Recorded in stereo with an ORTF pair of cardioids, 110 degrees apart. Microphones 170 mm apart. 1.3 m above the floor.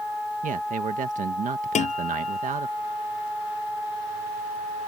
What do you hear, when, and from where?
0.4 s a man speaking: 50° right
1.8 s a guitar: 45° left